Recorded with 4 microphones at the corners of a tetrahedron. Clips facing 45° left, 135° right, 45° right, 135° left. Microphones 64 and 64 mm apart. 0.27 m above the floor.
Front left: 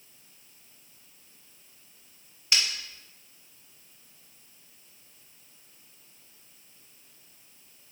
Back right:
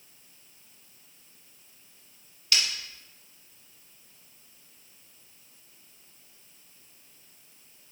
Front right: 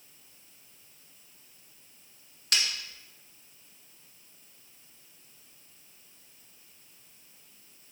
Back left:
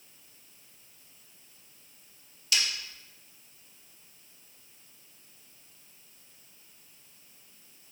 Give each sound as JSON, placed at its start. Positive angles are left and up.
{"t": 2.5, "sound": "breaking glass", "azimuth_deg": -20, "distance_m": 1.7}